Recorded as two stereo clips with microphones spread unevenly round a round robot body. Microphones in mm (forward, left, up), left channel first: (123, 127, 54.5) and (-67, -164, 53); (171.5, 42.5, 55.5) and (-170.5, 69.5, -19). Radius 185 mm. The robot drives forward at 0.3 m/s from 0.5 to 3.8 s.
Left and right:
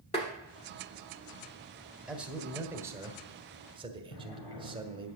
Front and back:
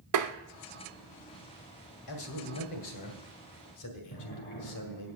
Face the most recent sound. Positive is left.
turn(degrees=60)